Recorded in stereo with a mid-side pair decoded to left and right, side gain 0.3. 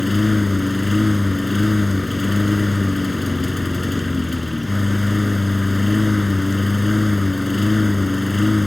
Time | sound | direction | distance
0.0 | a lawn mower | 20° left | ?